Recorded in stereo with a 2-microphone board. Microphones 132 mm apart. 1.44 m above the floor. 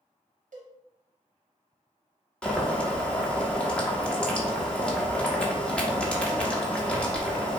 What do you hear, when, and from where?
0.5 s a cowbell: 80° right, 1.3 m
2.4 s boiling: 10° left (ahead or behind), 1.1 m